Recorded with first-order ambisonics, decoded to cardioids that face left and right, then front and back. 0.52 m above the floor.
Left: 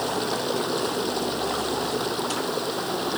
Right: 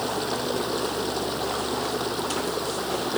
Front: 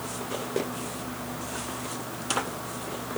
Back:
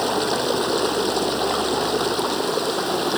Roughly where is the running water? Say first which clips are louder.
Left 1 dB, back 13 dB; behind.